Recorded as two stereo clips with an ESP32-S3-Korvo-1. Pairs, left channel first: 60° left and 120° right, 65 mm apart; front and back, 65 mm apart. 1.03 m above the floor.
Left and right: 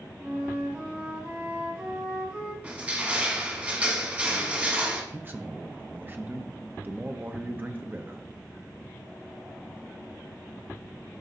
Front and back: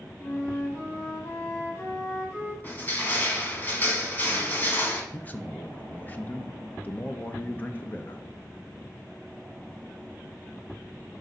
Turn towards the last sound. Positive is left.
turn(degrees=-65)